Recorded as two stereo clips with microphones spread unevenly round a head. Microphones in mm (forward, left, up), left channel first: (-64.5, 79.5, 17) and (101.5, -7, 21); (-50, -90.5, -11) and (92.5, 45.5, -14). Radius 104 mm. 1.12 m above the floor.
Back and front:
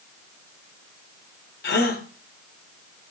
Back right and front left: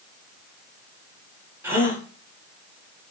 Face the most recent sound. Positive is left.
turn(degrees=120)